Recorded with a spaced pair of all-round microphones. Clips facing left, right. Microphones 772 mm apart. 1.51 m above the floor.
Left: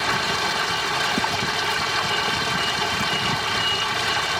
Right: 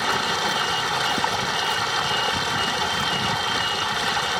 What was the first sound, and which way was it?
Running water, 55° left (ahead or behind).